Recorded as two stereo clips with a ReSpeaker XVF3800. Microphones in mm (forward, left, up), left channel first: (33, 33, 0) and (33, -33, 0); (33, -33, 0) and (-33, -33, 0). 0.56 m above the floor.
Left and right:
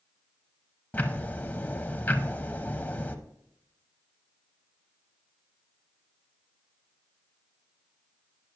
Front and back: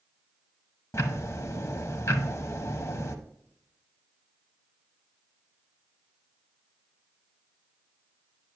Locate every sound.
0.9 s ticking: 30° left, 0.5 m